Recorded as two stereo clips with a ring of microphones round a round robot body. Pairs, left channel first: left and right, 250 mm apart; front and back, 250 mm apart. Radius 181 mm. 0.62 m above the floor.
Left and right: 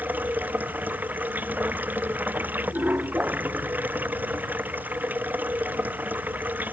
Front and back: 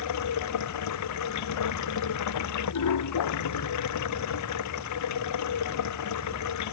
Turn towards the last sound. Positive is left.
turn(degrees=-5)